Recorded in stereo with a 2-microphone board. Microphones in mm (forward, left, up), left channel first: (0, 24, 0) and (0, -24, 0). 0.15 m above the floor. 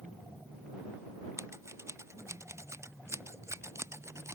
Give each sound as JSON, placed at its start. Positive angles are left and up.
{"t": 1.4, "sound": "scissors", "side_deg": -70}